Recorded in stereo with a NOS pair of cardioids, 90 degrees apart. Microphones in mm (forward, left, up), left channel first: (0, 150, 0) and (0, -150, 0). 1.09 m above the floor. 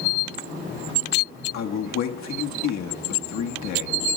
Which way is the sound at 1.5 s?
70° left.